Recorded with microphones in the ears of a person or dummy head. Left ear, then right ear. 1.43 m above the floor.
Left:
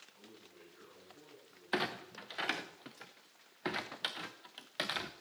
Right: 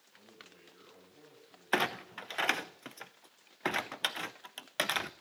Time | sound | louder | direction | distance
0.1 | a man speaking | right 2 dB | 25° right (ahead or behind) | 8.5 m
1.7 | a clunk | right 5 dB | 25° right (ahead or behind) | 0.7 m